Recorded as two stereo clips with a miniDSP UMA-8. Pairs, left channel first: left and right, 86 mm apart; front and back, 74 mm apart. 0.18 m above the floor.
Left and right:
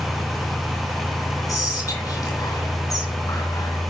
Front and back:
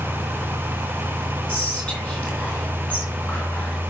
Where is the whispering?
75° left, 2 m.